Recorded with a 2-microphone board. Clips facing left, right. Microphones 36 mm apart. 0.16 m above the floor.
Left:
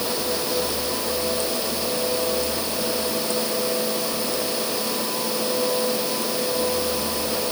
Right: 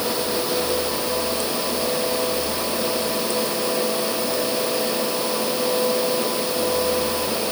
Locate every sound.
Only background noise.